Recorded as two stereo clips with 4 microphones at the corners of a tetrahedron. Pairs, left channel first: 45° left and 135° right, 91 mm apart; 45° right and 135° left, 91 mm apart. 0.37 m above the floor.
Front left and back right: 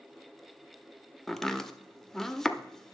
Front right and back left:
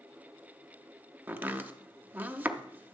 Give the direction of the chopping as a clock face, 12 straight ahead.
8 o'clock.